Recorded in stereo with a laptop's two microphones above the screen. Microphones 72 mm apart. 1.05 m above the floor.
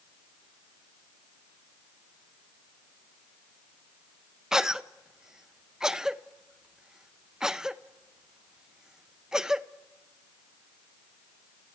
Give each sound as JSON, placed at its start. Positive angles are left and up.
{"t": 4.5, "sound": "a cough", "side_deg": -10, "distance_m": 0.7}